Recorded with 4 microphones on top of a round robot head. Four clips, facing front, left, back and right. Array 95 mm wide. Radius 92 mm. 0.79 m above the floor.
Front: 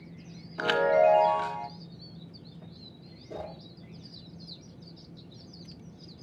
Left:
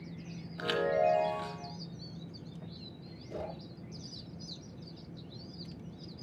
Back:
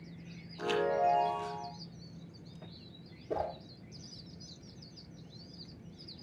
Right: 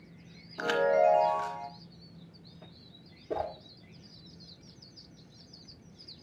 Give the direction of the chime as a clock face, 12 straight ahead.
1 o'clock.